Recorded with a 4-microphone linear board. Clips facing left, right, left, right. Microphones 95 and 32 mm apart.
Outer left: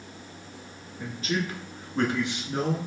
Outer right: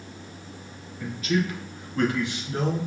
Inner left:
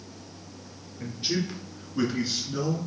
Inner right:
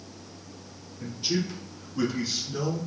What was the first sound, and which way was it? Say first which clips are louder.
A man speaking: outer right 4 dB, even; 35° left (ahead or behind).